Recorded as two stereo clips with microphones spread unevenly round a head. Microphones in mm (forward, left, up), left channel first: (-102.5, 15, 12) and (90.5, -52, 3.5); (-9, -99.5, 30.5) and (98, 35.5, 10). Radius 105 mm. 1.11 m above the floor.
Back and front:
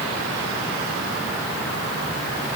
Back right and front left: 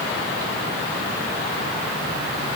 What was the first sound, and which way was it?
Only background noise.